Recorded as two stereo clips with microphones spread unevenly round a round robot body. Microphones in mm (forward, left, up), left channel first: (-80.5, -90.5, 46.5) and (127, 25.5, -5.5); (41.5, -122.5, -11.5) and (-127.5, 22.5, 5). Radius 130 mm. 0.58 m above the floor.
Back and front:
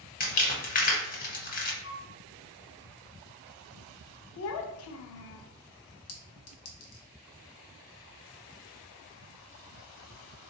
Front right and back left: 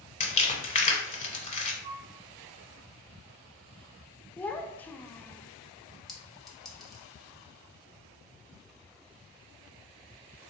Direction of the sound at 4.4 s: 120° right.